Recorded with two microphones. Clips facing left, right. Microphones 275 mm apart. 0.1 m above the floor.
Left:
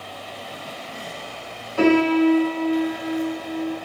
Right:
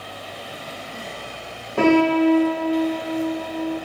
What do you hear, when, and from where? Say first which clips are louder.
1.8 s a piano: even; 55° right (ahead or behind), 5 m